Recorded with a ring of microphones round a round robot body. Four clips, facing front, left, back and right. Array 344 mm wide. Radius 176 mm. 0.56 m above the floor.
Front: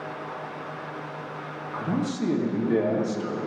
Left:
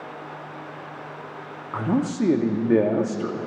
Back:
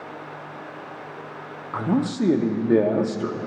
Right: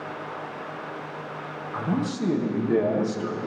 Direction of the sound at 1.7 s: 140° left.